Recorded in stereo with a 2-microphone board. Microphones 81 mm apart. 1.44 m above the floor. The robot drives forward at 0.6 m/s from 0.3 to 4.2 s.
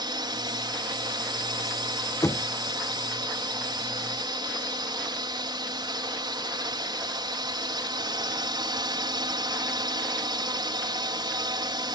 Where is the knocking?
40° left (ahead or behind); by 2.5 s 45° left (ahead or behind).